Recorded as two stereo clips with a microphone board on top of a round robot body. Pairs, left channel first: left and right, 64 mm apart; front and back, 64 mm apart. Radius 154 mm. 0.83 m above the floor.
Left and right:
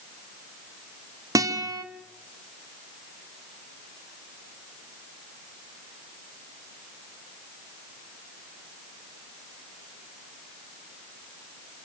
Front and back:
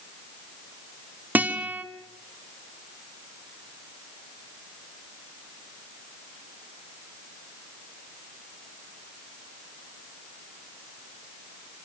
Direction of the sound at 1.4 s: 120° right.